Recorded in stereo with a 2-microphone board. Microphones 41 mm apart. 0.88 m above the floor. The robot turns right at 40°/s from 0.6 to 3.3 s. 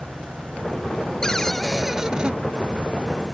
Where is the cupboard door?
160° left; by 2.4 s 155° right.